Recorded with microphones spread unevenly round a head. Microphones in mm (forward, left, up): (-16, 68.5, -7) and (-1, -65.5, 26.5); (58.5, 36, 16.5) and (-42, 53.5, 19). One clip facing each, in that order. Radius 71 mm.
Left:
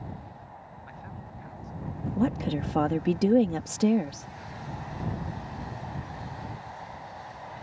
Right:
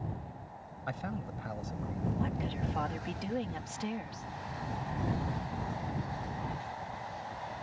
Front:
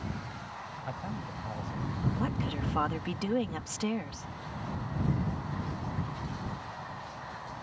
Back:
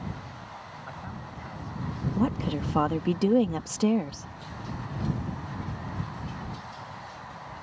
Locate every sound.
0.9 s a man speaking: 70° right
2.2 s a woman speaking: 115° left